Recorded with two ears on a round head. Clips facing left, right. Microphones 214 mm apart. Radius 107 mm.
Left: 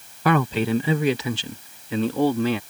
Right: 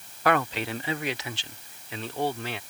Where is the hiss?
No hiss in this recording.